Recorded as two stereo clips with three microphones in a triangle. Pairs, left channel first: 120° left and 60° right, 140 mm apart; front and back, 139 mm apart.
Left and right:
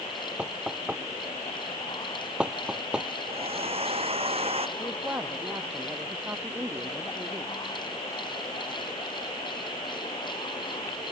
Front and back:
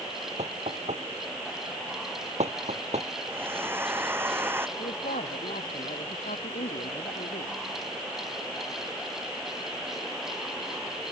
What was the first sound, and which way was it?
Knocking, 145° right.